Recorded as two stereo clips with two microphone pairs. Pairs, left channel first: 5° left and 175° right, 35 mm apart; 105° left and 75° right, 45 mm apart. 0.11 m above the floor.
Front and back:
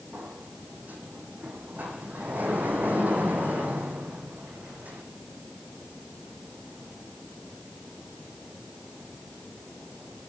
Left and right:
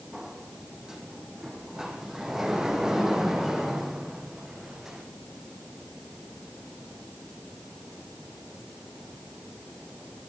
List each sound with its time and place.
0.1 s a sliding door: 155° right, 4 m